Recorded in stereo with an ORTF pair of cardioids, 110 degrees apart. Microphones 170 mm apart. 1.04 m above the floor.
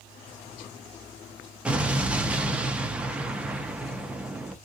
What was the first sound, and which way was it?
An explosion, 5° right.